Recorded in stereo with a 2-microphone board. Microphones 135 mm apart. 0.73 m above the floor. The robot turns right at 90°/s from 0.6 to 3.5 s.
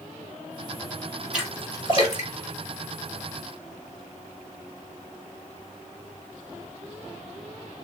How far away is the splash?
About 1.9 m.